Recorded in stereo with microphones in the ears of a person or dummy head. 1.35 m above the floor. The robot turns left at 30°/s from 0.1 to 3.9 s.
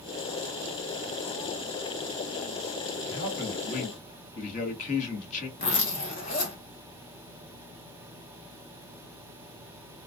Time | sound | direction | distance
3.0 | a man speaking | 70° left (ahead or behind) | 1.2 m
5.6 | a zipper | 35° left (ahead or behind) | 1.4 m